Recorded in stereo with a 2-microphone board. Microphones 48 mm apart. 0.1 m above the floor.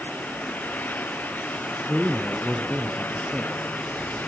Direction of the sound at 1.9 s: 5° right (ahead or behind).